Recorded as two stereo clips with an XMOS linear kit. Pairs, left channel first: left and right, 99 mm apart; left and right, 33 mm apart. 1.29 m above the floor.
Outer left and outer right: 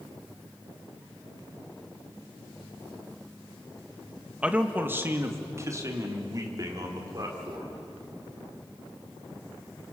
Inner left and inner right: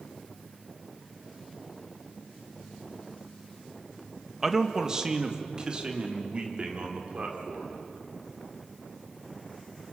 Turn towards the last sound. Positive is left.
turn(degrees=-40)  # may be behind; listen again after turning